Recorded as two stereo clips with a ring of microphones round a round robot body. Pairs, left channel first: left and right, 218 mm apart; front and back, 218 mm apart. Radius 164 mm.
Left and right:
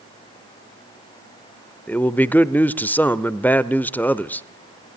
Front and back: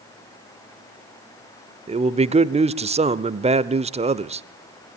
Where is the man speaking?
165° left, 0.9 m.